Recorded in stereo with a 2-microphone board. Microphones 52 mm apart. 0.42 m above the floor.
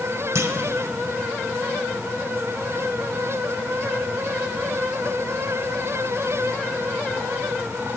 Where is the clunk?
65° right (ahead or behind), 0.5 m.